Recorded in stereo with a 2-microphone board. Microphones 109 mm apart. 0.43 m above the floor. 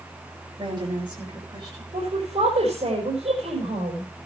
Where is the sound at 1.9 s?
80° right, 5 m.